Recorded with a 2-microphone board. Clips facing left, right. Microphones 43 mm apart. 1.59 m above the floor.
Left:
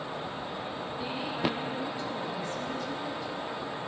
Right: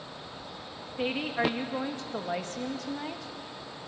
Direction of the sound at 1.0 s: 75° right (ahead or behind).